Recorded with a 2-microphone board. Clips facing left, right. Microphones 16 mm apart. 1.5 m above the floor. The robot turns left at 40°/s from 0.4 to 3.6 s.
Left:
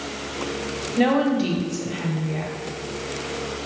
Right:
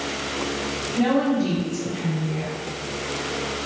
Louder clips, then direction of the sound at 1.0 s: Left 1 dB; 115° left.